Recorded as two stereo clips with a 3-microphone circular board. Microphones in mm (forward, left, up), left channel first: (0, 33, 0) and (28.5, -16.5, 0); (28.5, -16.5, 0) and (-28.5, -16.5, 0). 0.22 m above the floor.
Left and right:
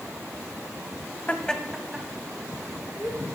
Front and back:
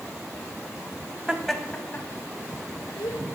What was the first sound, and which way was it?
Laughter, 130° left.